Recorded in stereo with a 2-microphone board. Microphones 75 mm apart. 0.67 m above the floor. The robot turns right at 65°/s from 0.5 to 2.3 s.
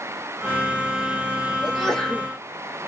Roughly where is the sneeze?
Centre.